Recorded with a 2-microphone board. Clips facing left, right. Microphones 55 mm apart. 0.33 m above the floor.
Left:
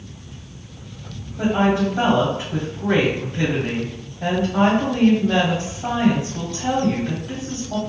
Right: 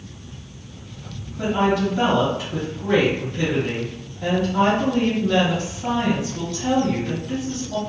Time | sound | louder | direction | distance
1.4 | a woman speaking | left 1 dB | 35° left (ahead or behind) | 1.5 m